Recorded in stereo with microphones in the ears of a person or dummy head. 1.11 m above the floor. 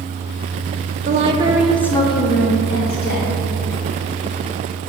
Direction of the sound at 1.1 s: 40° right (ahead or behind).